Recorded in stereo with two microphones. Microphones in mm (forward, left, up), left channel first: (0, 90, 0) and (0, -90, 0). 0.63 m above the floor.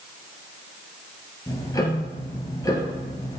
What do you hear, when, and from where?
1.5 s ticking: 20° left (ahead or behind), 1.9 m